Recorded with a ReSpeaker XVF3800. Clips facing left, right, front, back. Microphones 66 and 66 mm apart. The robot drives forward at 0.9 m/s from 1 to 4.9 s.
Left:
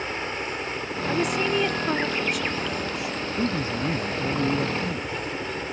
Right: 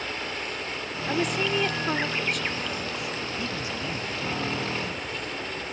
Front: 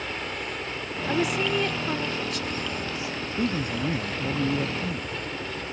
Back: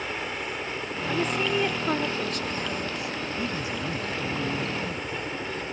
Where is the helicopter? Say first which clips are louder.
Left 3 dB, back 1 dB; 110° left; by 5.7 s 120° left.